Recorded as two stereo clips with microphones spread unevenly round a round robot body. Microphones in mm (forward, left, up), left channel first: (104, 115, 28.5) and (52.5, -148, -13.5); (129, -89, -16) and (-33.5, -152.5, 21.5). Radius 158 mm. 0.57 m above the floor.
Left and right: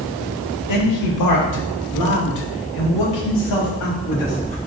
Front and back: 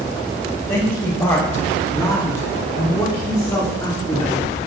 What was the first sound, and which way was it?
A man speaking, 90° left.